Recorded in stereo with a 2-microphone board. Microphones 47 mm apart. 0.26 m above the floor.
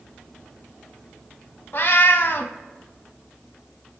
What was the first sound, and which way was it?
A cat meowing, 50° left (ahead or behind).